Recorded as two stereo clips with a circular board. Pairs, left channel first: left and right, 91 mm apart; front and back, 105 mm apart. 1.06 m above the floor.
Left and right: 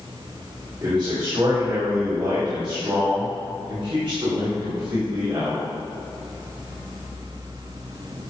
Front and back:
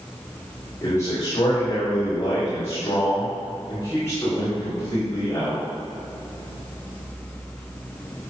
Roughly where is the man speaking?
Ahead right.